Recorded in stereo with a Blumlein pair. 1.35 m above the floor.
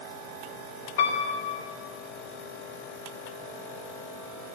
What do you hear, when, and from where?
1.0 s a piano: 55° left, 4 m